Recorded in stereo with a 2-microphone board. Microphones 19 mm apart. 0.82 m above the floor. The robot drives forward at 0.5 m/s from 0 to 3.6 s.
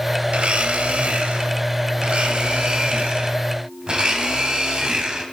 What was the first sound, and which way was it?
A blender, 80° right.